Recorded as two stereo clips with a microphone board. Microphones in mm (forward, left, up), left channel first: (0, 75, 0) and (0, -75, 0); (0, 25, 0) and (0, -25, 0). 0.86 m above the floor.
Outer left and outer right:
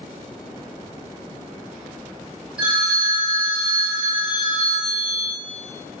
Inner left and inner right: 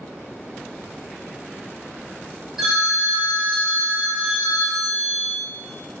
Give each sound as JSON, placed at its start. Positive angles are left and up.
{"t": 2.6, "sound": "a phone ringing", "side_deg": -5, "distance_m": 0.8}